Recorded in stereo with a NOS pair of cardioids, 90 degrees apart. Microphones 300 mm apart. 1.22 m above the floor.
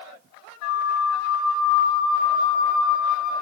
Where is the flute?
65° left, 0.6 m.